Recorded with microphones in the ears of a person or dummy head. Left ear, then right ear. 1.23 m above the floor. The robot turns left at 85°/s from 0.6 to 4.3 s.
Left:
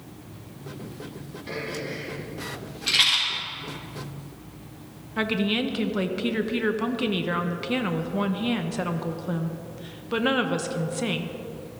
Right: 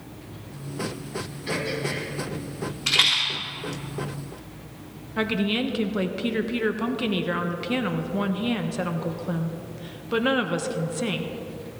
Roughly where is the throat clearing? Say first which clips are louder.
Right 4 dB; ahead right.